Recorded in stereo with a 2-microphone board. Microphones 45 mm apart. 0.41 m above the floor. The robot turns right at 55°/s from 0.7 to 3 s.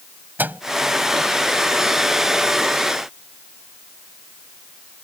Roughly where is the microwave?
Right.